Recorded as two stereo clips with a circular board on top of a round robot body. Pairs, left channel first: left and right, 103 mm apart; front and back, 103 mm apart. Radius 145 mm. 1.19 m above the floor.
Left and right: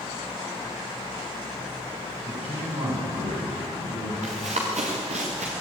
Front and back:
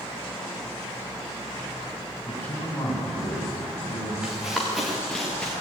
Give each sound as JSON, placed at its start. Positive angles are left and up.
{"t": 2.3, "sound": "a man speaking", "azimuth_deg": -75, "distance_m": 9.0}
{"t": 4.2, "sound": "running footsteps", "azimuth_deg": -100, "distance_m": 6.0}